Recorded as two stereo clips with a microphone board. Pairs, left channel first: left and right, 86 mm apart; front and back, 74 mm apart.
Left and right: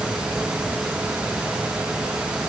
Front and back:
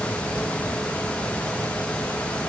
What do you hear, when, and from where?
Only background noise.